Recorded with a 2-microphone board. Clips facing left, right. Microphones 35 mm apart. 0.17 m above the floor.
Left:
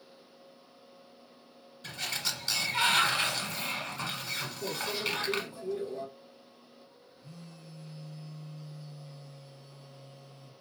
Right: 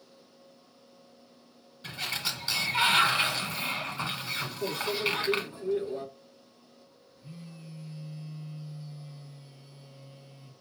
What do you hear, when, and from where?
1.8 s a sliding door: 20° right (ahead or behind), 1.1 m
4.6 s a microwave: 45° right (ahead or behind), 1.3 m
7.2 s a phone buzzing: 20° right (ahead or behind), 1.6 m